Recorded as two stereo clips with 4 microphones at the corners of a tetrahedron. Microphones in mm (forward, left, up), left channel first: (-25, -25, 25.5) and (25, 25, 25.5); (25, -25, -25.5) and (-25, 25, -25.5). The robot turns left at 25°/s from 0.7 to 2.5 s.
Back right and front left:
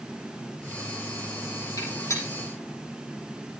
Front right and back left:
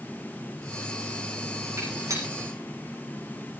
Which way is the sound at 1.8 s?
Straight behind.